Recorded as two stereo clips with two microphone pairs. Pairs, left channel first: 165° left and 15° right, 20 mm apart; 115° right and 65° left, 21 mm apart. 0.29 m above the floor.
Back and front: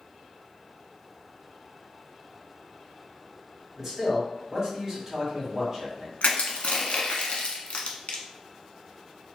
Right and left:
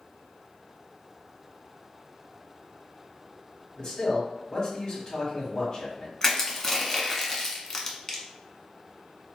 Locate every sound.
3.8 s a man speaking: 80° right, 1.6 m
6.2 s crushing: 175° left, 0.7 m